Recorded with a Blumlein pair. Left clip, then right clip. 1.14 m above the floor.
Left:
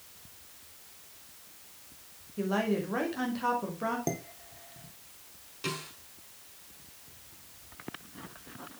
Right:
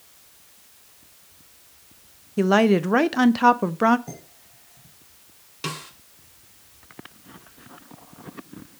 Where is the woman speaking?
35° right, 0.6 m.